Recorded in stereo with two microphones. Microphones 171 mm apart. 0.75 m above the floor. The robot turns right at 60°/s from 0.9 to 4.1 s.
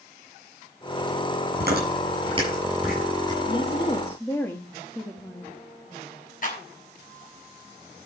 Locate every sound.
1.6 s chewing: 75° right (ahead or behind), 8 m; by 3.4 s 30° left (ahead or behind), 8 m
3.5 s a woman speaking: 125° left, 1.2 m; by 5.5 s 165° left, 1.2 m
6.4 s a clap: 55° left (ahead or behind), 5 m